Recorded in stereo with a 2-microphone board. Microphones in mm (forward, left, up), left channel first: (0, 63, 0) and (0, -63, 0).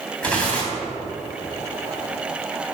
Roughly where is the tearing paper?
Centre.